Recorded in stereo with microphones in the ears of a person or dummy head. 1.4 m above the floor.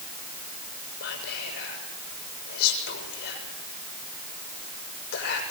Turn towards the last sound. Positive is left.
turn(degrees=55)  # may be behind; listen again after turning